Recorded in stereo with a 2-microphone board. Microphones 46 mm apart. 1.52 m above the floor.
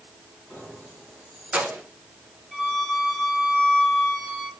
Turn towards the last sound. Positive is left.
turn(degrees=5)  # may be behind; listen again after turning